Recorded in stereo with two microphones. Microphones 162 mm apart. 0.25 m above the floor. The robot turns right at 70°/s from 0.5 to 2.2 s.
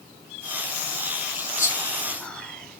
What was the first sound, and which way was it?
Whispering, 20° left (ahead or behind).